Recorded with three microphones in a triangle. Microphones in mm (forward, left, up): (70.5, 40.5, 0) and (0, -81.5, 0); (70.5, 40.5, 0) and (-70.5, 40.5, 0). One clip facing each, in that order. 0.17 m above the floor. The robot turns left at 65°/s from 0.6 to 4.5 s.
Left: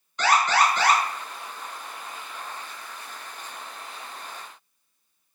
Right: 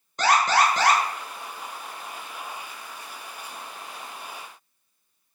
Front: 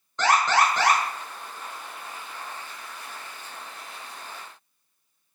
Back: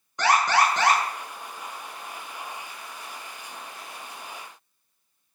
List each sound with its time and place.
0.2 s an alarm: 110° right, 1.0 m; by 1.0 s 140° right, 1.0 m